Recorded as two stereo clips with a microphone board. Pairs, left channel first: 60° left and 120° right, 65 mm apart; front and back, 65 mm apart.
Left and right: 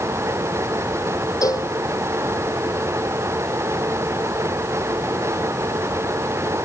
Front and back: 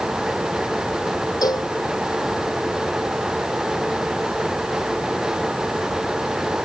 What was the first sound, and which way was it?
A cowbell, 25° left.